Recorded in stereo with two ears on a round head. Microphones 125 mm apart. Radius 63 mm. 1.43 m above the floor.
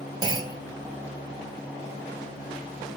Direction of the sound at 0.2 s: 30° right (ahead or behind).